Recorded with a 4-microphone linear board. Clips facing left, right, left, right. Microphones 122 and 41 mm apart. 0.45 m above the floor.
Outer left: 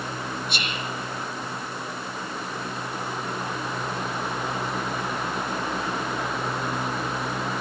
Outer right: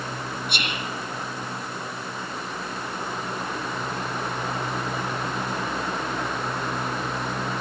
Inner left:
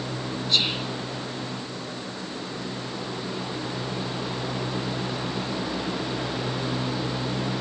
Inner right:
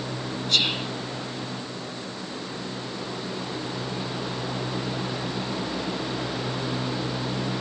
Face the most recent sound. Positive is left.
turn(degrees=-65)  # may be behind; listen again after turning